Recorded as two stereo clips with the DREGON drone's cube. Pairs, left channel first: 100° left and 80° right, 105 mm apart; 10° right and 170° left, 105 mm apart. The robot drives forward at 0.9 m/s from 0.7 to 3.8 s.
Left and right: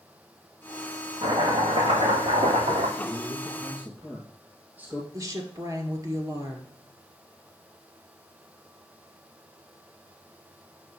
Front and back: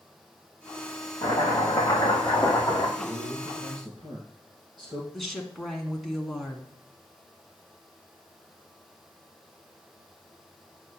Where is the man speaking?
140° right, 2.5 m; by 5.0 s 150° right, 3 m.